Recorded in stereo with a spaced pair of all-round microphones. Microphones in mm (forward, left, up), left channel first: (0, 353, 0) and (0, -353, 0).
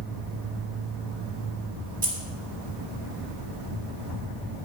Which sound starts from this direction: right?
Keys jangling, at 2.0 s.